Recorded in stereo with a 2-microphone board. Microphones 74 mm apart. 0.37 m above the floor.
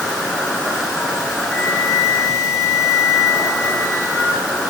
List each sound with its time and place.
0.0 s an insect: 5° left (ahead or behind), 1.8 m
1.5 s a flute: 25° right (ahead or behind), 7 m